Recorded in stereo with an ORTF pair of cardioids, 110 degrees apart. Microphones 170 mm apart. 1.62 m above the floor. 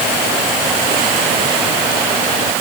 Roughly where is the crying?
No crying in this recording.